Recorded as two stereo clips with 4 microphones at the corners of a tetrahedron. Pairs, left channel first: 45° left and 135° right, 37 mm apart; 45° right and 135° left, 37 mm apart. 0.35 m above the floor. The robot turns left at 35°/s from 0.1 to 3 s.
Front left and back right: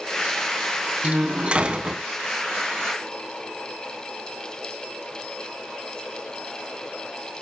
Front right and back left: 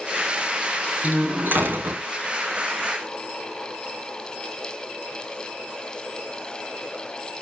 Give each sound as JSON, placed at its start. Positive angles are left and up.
{"t": 1.0, "sound": "a door slam", "azimuth_deg": -175, "distance_m": 3.0}